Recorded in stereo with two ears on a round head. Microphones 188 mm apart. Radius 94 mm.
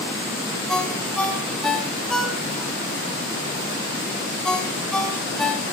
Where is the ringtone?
5° left (ahead or behind), 2 m.